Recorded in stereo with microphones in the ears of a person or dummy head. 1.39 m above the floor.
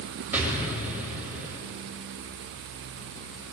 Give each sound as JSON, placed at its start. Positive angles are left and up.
{"t": 0.3, "sound": "an explosion", "side_deg": -5, "distance_m": 2.0}